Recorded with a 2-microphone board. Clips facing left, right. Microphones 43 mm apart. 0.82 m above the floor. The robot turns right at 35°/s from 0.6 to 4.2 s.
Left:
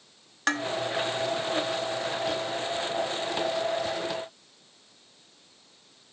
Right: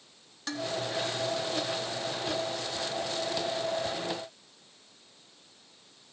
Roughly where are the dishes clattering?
Left.